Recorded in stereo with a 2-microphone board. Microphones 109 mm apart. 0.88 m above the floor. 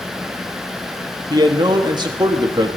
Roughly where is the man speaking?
Right.